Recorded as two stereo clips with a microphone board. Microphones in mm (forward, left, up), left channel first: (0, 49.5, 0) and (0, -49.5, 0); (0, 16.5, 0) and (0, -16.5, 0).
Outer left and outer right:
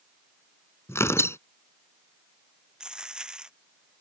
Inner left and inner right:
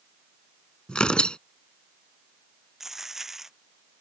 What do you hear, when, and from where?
0.9 s tearing paper: 30° left (ahead or behind)
2.8 s a dropped coin: 10° right (ahead or behind)